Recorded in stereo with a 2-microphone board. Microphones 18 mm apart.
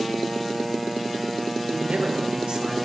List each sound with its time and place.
1.7 s a man speaking: 65° right (ahead or behind), 2 m; by 2.9 s 55° right (ahead or behind), 1.7 m